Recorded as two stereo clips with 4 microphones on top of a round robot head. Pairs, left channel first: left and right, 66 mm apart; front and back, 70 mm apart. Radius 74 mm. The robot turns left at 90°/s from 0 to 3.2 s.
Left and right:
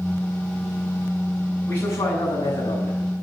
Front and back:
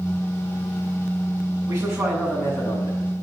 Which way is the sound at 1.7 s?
155° left.